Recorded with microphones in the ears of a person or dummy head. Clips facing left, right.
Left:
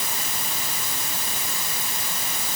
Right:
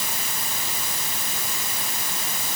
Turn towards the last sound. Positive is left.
No sound to turn to.